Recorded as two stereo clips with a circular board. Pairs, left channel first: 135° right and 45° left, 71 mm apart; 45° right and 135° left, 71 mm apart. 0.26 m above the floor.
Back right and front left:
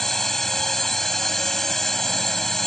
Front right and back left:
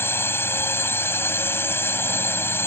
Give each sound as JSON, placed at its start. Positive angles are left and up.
{"t": 0.0, "sound": "a drone", "azimuth_deg": -55}